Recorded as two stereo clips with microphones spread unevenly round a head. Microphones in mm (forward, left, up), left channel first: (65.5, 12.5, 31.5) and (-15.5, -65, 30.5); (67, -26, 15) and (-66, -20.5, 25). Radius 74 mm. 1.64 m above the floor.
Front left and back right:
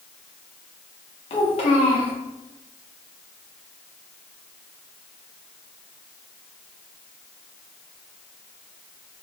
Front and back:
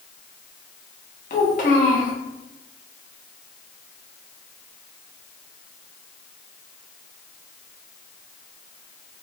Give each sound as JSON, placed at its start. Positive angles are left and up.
{"t": 1.3, "sound": "a child speaking", "azimuth_deg": 25, "distance_m": 0.8}